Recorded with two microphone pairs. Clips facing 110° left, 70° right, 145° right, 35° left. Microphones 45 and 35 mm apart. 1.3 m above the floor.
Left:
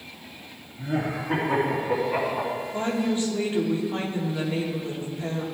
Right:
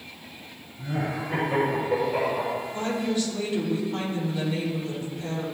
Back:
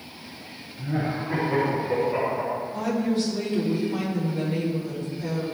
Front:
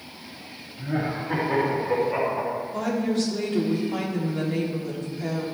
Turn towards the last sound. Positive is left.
turn(degrees=50)